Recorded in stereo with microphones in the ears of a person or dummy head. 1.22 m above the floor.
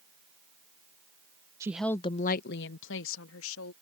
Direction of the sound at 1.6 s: 15° right (ahead or behind).